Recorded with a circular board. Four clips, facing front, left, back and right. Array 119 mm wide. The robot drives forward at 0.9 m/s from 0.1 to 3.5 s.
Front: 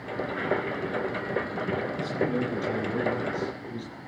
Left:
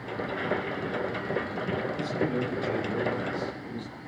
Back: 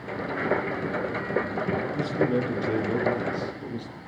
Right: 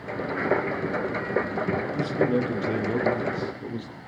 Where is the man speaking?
120° right, 6 m; by 4.0 s 130° right, 7 m.